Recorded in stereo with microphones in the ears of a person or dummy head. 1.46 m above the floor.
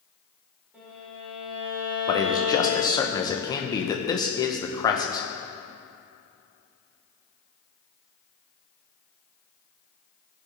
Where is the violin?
10° right (ahead or behind), 3 m.